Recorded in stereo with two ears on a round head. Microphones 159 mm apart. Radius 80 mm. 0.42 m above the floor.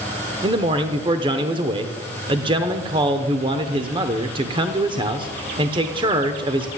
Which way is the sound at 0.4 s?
25° right (ahead or behind).